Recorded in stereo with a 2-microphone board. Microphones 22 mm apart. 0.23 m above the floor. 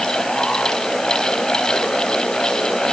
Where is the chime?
No chime in this recording.